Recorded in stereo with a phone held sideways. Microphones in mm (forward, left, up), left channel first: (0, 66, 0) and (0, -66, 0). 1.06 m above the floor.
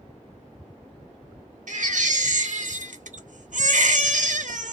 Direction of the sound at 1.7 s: 70° right (ahead or behind).